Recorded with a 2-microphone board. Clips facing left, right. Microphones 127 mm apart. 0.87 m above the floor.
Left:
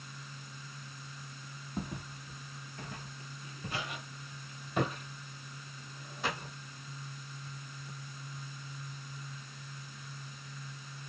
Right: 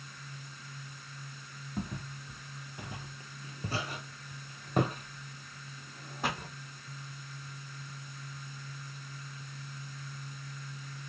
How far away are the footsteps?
About 1.2 m.